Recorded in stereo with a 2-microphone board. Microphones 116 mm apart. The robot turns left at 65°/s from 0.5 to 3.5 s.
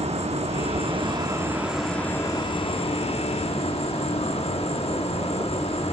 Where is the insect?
95° right, 1.3 m; by 5.9 s 70° left, 1.3 m.